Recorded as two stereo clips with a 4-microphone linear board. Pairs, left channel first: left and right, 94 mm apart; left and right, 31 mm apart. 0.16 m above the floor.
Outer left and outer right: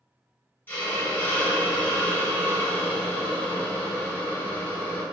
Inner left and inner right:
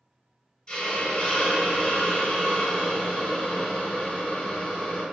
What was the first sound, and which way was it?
A hiss, 20° left (ahead or behind).